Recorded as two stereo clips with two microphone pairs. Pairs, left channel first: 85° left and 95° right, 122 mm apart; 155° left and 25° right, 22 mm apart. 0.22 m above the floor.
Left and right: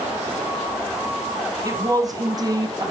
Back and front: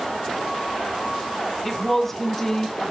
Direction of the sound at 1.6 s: 130° right.